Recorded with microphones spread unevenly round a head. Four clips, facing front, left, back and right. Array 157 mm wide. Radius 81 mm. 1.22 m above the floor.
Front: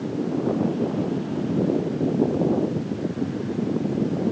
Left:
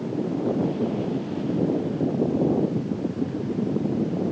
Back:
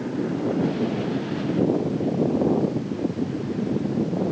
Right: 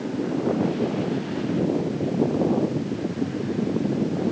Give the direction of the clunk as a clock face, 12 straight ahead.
No clunk in this recording.